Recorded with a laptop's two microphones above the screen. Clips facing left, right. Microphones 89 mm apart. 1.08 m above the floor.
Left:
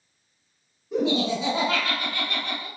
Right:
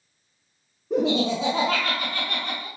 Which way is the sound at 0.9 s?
80° right.